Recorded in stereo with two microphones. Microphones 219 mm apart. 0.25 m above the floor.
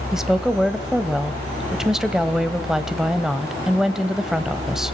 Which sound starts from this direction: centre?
A woman speaking, at 0.1 s.